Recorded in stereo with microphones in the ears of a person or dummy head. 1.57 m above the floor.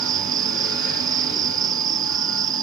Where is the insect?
20° right (ahead or behind).